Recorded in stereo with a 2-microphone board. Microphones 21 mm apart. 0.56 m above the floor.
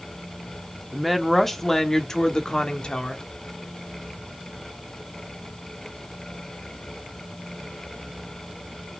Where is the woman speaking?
5° right (ahead or behind), 1.3 m; by 3.2 s 50° left (ahead or behind), 1.6 m.